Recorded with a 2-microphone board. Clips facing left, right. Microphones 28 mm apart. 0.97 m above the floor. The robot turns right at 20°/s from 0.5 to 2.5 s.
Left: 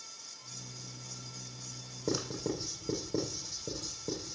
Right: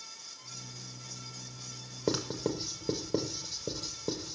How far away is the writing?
About 5.5 m.